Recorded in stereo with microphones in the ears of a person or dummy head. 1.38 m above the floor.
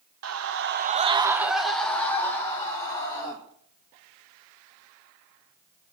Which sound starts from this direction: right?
A scream, at 0.2 s.